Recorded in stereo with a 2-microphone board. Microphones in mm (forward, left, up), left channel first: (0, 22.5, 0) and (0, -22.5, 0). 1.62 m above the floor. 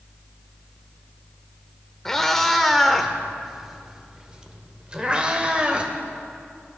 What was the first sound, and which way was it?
A cat meowing, 10° left (ahead or behind).